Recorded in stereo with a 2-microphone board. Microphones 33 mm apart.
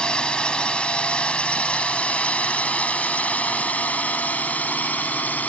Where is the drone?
30° left (ahead or behind); by 5.5 s 55° left (ahead or behind).